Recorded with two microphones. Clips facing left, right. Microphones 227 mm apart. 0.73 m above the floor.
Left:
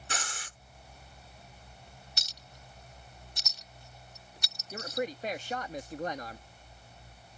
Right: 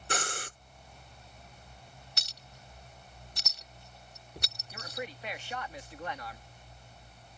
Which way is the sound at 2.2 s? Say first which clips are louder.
Even; 60° right (ahead or behind).